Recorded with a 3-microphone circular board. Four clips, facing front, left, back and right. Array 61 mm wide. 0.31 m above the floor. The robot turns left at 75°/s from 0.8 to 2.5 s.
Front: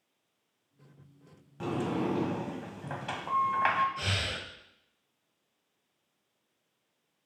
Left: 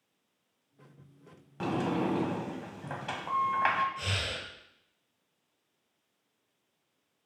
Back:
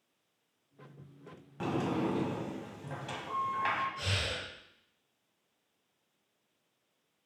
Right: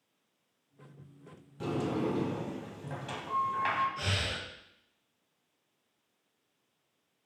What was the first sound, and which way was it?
A sliding door, 110° left.